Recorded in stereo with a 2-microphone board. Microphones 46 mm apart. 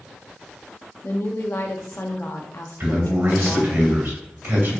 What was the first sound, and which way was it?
A woman speaking, 55° left (ahead or behind).